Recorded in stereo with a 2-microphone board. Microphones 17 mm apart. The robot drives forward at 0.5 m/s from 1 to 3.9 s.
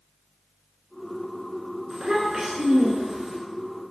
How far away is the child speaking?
About 1.0 m.